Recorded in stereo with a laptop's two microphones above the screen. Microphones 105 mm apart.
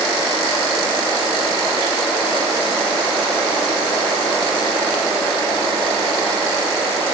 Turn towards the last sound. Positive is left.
No sound to turn to.